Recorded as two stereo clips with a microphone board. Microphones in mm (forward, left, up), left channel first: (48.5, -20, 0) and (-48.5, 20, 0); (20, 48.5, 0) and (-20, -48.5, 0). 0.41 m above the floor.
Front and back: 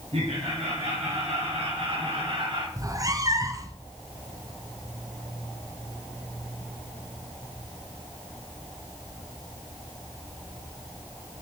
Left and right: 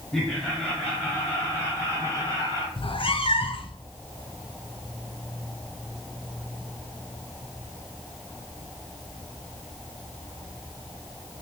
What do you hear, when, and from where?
0.1 s laughter: 150° left, 5 m; by 2.7 s 110° left, 4 m
2.8 s a cat meowing: 100° left, 1.0 m